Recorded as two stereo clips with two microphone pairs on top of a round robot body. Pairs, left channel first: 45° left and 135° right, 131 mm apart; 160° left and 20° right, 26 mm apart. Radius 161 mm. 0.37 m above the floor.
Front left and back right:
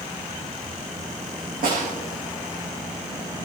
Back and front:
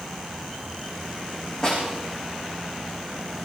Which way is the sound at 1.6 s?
135° right.